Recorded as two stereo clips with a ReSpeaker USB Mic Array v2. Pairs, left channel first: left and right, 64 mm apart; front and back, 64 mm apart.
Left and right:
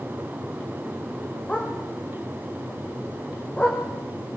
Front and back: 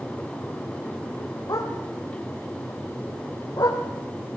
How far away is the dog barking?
About 4.5 m.